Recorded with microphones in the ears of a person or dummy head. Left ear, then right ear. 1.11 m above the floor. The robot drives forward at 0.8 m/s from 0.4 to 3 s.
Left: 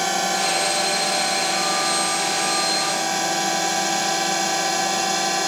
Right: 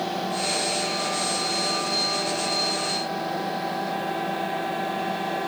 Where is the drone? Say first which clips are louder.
Left 6 dB; 60° left (ahead or behind); by 5.5 s 80° left.